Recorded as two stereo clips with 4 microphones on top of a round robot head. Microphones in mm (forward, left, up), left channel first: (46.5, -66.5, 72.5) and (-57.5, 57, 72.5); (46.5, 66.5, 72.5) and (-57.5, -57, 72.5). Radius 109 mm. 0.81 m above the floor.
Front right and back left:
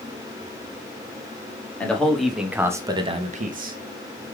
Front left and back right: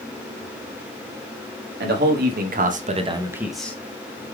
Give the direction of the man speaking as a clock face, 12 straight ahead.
4 o'clock.